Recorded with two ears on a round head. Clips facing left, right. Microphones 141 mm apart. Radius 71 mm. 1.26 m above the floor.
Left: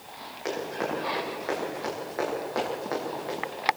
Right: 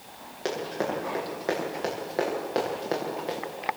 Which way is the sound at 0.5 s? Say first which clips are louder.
Right 1 dB; 35° right (ahead or behind).